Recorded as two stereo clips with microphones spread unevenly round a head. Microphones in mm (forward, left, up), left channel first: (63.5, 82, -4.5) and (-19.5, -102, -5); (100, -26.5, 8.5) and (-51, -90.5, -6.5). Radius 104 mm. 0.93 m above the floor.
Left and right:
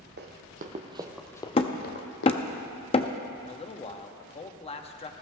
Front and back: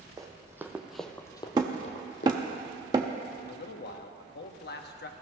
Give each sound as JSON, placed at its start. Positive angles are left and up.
{"t": 0.2, "sound": "running footsteps", "azimuth_deg": -85, "distance_m": 2.0}
{"t": 1.6, "sound": "hammering", "azimuth_deg": 130, "distance_m": 0.5}
{"t": 3.4, "sound": "a man speaking", "azimuth_deg": 5, "distance_m": 1.1}